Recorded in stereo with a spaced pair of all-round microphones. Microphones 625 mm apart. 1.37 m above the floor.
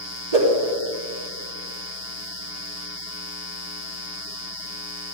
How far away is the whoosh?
About 3.5 m.